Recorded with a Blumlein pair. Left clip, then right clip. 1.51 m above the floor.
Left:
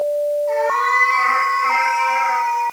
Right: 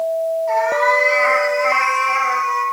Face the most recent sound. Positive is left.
turn(degrees=-10)